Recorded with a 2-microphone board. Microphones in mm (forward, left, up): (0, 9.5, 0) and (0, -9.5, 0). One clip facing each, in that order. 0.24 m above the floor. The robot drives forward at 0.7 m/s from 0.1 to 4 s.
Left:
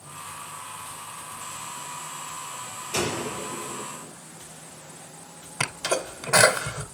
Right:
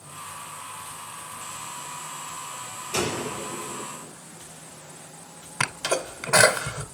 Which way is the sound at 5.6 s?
25° right (ahead or behind).